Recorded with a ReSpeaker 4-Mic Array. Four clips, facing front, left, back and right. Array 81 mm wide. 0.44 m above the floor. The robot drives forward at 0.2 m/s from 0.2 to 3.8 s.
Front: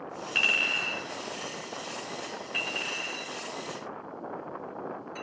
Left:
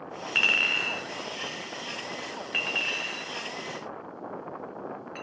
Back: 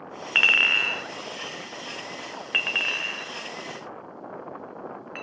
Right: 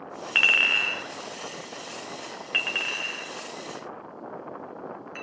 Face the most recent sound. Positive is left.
turn(degrees=-170)